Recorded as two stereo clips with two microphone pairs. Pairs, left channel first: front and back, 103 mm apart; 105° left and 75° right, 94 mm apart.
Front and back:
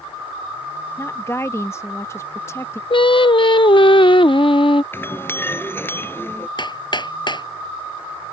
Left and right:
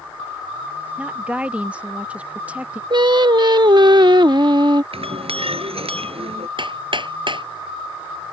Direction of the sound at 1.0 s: 10° right.